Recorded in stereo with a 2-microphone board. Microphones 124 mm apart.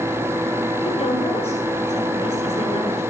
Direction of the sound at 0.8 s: 55° left (ahead or behind).